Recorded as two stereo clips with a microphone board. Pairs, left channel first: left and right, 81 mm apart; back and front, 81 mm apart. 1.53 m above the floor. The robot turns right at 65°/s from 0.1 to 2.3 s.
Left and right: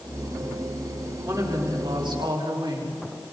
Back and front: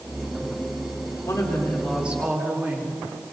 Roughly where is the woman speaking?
Behind right.